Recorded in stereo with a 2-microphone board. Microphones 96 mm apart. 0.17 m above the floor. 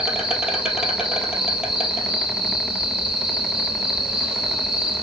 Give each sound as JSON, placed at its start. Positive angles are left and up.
{"t": 0.0, "sound": "an insect", "side_deg": -5, "distance_m": 1.8}